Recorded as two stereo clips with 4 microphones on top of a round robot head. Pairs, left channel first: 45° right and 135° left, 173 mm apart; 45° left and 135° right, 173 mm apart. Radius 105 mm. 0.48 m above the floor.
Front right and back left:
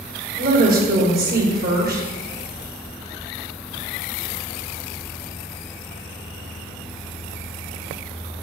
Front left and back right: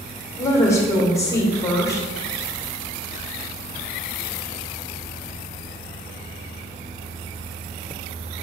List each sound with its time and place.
0.4 s a woman speaking: 115° left, 1.9 m